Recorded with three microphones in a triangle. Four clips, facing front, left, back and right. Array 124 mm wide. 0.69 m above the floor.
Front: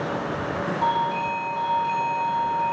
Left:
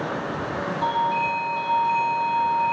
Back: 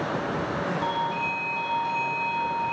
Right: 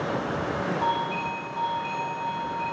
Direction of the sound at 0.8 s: 10° right.